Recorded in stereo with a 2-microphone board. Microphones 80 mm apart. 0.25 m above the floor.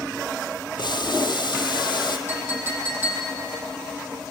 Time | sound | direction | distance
0.8 | boiling | 65° left (ahead or behind) | 2.0 m
2.3 | a clink | 25° right (ahead or behind) | 6.5 m